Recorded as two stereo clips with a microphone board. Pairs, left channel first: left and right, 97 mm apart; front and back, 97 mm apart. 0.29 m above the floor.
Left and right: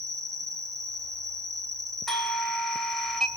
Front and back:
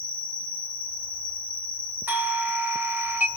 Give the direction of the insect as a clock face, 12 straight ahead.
2 o'clock.